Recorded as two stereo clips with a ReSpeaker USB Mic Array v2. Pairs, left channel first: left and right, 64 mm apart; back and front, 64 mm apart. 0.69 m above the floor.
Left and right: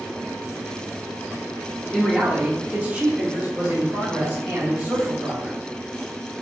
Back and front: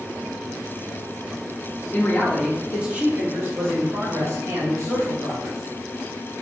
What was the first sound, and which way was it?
A man speaking, 170° right.